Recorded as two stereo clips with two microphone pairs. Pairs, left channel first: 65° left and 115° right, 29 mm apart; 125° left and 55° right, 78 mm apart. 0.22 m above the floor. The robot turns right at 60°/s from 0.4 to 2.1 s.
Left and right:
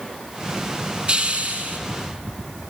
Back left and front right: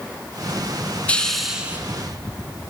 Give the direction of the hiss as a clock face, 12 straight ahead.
5 o'clock.